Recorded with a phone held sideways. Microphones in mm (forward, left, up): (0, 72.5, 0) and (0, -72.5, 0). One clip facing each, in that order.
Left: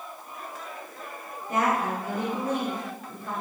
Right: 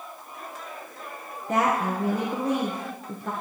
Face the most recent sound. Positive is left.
turn(degrees=-80)